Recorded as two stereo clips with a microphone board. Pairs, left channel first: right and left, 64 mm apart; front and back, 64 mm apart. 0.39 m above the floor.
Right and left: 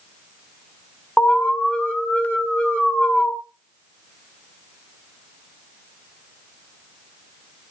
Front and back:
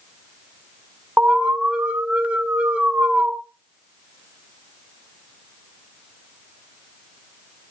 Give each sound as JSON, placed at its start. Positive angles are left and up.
{"t": 1.2, "sound": "an alarm", "azimuth_deg": -140, "distance_m": 2.0}